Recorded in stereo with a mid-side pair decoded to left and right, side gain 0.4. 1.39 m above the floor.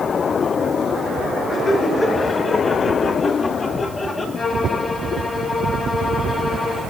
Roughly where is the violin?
Ahead left.